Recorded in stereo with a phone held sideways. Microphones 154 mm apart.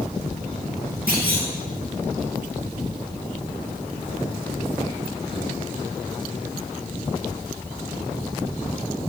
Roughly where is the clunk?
Right.